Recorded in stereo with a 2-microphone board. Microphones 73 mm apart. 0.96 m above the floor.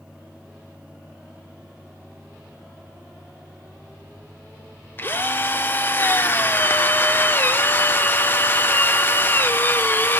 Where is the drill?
30° left (ahead or behind), 0.8 m.